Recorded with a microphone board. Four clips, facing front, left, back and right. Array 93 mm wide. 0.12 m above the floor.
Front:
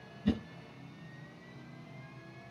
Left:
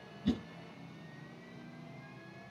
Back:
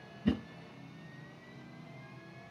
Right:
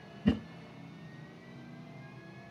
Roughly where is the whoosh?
Behind right.